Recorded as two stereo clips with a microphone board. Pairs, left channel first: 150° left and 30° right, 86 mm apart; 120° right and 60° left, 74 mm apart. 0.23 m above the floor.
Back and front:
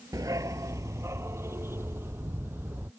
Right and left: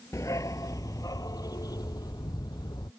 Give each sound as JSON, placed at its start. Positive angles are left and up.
{"t": 0.1, "sound": "a dog barking", "azimuth_deg": -75}